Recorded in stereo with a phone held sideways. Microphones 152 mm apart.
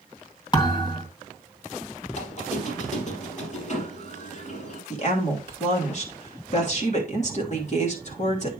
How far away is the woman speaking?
About 3 m.